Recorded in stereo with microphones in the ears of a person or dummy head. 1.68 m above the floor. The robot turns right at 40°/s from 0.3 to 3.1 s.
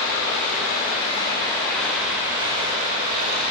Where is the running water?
115° left, 1.5 m; by 3.5 s 130° right, 1.5 m.